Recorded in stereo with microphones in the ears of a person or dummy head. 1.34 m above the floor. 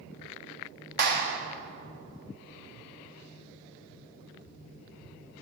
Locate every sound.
1.0 s a clap: 45° right (ahead or behind), 1.0 m